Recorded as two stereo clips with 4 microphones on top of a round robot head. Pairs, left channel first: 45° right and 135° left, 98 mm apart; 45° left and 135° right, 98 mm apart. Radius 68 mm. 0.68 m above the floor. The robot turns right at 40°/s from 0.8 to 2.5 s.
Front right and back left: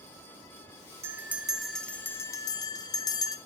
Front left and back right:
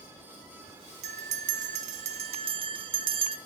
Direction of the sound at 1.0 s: 160° right.